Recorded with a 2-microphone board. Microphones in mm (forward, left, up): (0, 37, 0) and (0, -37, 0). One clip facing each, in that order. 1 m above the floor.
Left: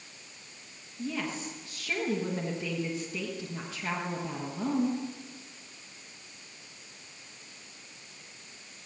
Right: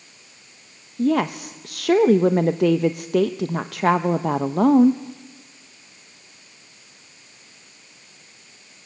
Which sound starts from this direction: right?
A woman speaking, at 1.0 s.